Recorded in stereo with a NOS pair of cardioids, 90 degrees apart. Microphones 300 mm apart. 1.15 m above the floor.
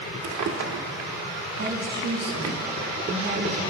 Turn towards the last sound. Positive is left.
turn(degrees=-35)